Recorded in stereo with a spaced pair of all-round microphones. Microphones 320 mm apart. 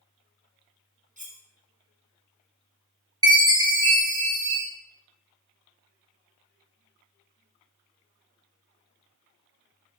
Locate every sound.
1.2 s cutlery clinking: 25° right (ahead or behind), 0.6 m
3.2 s a chime: 10° right (ahead or behind), 0.9 m